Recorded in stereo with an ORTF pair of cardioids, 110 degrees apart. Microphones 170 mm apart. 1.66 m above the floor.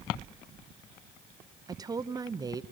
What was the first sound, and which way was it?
A woman speaking, 20° right.